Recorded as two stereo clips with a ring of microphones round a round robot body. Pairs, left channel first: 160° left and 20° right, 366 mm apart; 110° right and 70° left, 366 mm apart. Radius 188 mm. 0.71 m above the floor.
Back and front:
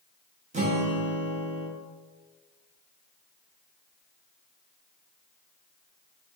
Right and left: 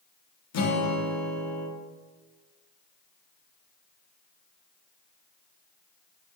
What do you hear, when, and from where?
0.5 s a guitar: 90° right, 0.8 m